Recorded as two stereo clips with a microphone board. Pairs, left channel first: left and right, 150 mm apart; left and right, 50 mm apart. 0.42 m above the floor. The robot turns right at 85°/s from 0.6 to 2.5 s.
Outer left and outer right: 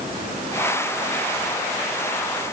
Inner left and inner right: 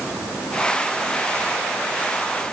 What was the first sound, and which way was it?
Only background noise.